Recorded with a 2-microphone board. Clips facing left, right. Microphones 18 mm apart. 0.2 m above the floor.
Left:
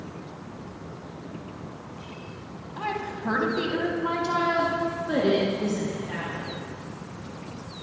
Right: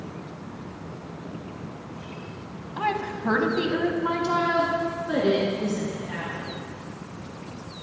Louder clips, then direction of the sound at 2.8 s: Right 4 dB; 25° right (ahead or behind).